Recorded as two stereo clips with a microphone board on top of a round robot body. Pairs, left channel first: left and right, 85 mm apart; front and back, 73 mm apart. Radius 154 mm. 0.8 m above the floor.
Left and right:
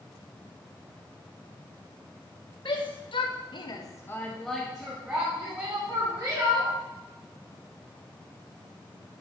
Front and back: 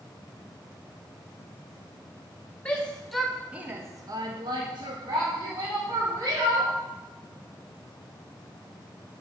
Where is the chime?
No chime in this recording.